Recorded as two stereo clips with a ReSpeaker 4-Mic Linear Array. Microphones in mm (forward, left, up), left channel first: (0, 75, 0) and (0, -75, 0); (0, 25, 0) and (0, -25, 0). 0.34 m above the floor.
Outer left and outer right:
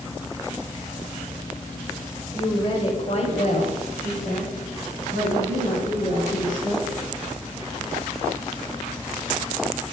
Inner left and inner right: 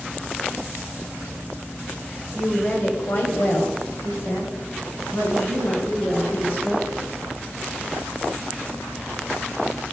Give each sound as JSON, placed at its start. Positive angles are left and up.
{"t": 2.3, "sound": "a woman speaking", "side_deg": 25, "distance_m": 0.9}